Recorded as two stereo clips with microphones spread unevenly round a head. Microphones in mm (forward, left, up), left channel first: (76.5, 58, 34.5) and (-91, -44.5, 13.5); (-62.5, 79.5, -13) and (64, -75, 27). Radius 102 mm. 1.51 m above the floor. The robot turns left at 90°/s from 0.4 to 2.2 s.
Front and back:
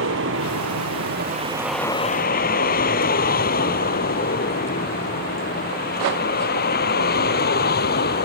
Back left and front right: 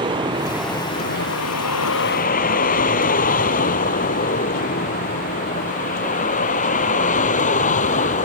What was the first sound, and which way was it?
A vehicle, 120° right.